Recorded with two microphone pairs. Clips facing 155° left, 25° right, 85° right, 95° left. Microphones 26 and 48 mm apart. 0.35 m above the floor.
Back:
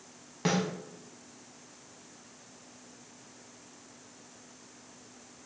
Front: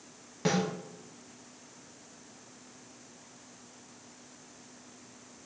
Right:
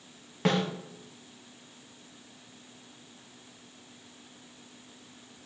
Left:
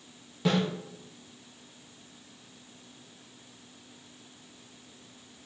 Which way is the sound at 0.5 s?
125° right.